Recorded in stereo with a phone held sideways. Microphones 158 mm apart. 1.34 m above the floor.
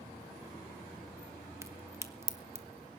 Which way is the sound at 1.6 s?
15° right (ahead or behind).